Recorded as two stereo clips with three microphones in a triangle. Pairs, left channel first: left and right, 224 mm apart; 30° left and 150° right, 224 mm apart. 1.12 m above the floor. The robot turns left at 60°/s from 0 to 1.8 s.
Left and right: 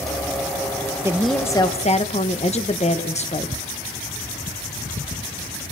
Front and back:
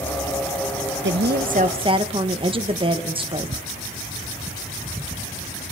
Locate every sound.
1.0 s a woman speaking: 165° right, 1.2 m; by 3.6 s 150° left, 1.2 m